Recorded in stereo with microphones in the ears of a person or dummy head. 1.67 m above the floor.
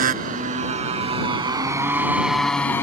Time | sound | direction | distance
0.0 | a motorcycle | 55° right (ahead or behind) | ?